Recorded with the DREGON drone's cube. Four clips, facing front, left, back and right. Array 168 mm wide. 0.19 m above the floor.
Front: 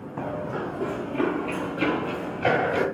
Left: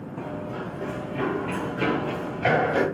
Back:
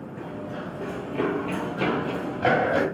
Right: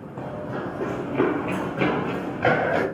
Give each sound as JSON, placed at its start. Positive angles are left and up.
{"t": 0.2, "sound": "running footsteps", "azimuth_deg": -20, "distance_m": 0.8}